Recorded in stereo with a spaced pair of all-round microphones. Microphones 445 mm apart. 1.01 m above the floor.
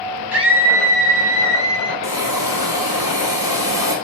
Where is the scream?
60° right (ahead or behind), 8 m; by 1.9 s 65° right (ahead or behind), 10 m.